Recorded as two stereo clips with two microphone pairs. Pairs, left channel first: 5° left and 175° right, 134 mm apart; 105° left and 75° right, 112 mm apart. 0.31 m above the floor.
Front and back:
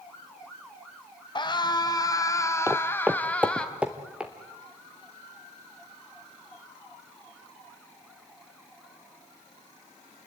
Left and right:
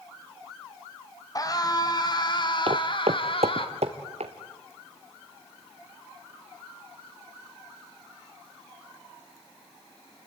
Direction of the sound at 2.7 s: 105° right.